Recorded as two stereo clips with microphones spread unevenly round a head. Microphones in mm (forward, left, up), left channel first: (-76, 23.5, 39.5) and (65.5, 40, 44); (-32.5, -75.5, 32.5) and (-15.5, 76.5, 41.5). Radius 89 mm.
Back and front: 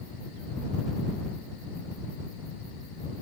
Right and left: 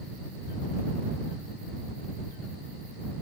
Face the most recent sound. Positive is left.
No sound to turn to.